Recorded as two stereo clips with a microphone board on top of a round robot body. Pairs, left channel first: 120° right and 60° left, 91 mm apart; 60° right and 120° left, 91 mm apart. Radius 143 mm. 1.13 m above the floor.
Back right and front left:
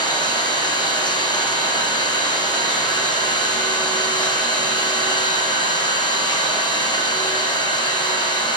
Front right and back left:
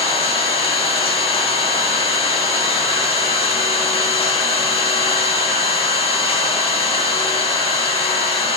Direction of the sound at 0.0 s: 80° right.